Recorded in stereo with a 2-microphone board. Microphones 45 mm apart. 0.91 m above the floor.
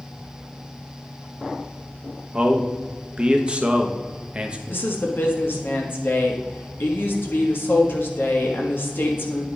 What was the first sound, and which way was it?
A man speaking, 25° right (ahead or behind).